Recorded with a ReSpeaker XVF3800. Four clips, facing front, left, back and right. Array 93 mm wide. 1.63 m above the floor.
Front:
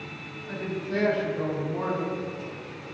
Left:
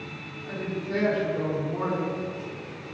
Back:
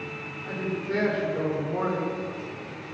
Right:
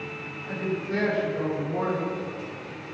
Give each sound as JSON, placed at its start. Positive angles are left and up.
{"t": 0.5, "sound": "a woman speaking", "azimuth_deg": -170, "distance_m": 5.5}